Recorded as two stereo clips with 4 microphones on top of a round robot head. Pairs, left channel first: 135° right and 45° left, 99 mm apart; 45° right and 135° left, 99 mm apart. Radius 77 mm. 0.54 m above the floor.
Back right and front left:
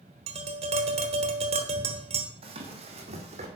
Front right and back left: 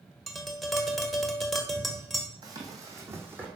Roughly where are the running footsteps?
Left.